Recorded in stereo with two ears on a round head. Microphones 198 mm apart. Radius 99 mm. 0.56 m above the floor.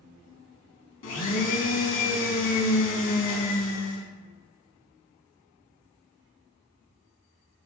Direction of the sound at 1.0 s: 60° left (ahead or behind).